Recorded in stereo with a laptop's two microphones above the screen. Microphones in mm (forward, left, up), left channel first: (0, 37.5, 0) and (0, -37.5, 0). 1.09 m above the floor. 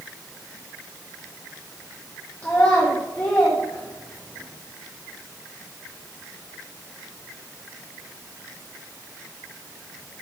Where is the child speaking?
25° left (ahead or behind), 1.0 m.